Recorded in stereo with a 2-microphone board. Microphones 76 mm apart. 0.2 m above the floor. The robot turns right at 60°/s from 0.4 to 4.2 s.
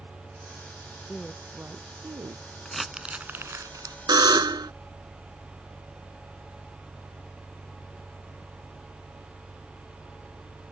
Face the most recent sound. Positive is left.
turn(degrees=-65)  # may be behind; listen again after turning